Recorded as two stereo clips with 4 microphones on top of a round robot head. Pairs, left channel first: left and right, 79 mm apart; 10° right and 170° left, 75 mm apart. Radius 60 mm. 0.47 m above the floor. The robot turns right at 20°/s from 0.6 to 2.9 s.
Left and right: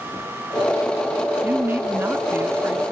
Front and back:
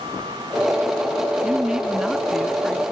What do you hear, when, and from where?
1.4 s a woman speaking: 120° right, 1.0 m; by 2.9 s 90° right, 1.0 m